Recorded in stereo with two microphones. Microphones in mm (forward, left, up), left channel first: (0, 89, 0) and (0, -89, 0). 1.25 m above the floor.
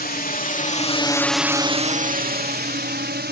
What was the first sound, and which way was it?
A drone, 60° left (ahead or behind).